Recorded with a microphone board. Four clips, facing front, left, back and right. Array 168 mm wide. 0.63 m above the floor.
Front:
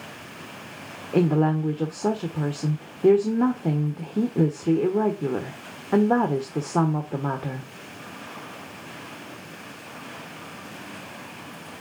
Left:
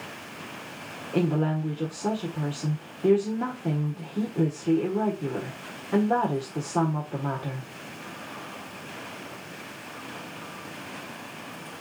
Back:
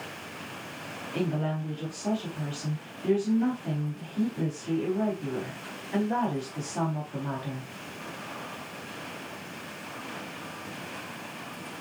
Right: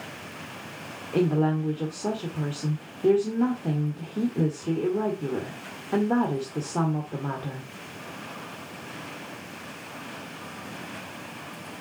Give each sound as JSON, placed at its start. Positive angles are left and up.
{"t": 1.1, "sound": "a woman speaking", "azimuth_deg": 0, "distance_m": 1.4}